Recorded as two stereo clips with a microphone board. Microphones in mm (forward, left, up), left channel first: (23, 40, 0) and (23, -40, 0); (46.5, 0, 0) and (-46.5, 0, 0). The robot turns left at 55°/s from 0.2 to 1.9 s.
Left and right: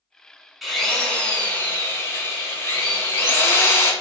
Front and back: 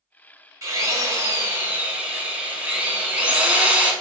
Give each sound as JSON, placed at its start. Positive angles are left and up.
{"t": 0.6, "sound": "a drill", "azimuth_deg": -175, "distance_m": 0.7}